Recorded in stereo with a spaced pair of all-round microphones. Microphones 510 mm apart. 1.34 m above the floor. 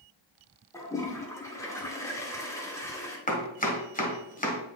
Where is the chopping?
15° left (ahead or behind), 1.5 m.